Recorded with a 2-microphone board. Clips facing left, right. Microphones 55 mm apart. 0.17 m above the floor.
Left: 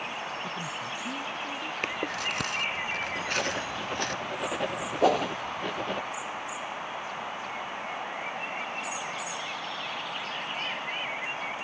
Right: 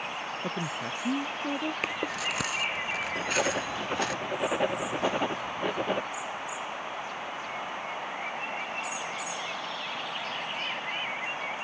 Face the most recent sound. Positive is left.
turn(degrees=75)  # may be behind; listen again after turning